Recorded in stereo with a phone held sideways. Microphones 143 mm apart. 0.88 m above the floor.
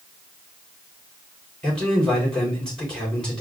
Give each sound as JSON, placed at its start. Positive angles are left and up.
{"t": 1.6, "sound": "a man speaking", "side_deg": 5, "distance_m": 3.0}